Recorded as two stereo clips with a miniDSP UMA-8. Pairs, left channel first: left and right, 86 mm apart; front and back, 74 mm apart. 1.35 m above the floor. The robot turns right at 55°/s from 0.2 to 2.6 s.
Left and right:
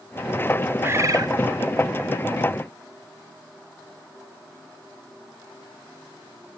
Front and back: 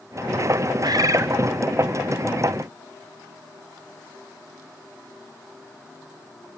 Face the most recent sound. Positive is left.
turn(degrees=-55)